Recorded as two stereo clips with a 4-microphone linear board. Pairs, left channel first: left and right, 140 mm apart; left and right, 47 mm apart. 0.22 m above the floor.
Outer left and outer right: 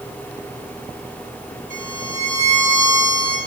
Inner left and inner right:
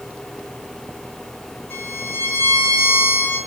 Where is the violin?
65° left (ahead or behind), 6 m.